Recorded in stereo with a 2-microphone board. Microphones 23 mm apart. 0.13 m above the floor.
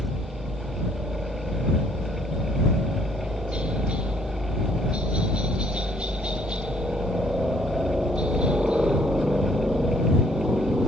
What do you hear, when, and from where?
0.0 s a helicopter: 60° right (ahead or behind); by 10.9 s 45° right (ahead or behind)